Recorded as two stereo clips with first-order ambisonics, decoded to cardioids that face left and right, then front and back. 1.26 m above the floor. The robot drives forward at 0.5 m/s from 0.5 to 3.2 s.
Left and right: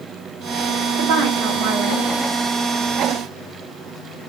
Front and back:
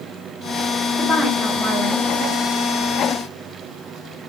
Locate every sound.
1.0 s a woman speaking: 85° right, 1.3 m; by 2.0 s 110° right, 1.3 m